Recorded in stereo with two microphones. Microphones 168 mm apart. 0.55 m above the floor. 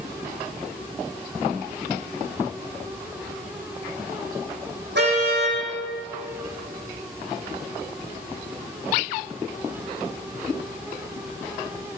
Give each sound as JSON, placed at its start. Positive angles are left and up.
{"t": 5.0, "sound": "a car horn", "side_deg": -80, "distance_m": 10.0}